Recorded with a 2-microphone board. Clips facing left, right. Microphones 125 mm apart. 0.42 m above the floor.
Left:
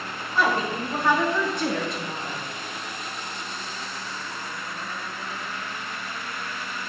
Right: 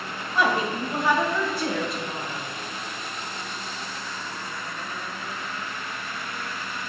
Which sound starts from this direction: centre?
A woman speaking, at 0.3 s.